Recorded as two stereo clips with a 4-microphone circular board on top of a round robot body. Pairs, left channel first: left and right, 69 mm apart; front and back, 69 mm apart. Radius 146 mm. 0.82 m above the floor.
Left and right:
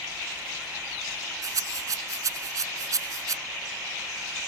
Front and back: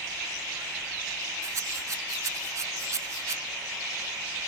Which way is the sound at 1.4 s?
130° right.